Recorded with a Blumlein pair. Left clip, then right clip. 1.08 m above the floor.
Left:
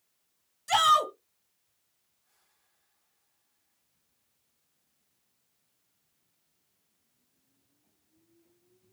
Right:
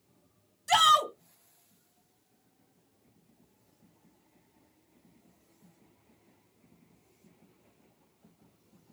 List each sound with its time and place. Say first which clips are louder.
0.7 s a shout: even; 5° right, 0.8 m